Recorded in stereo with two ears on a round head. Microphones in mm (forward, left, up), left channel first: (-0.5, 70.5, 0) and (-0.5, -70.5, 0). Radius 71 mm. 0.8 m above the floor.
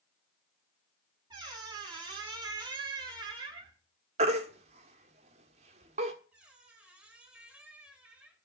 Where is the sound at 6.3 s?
5° right (ahead or behind), 2 m.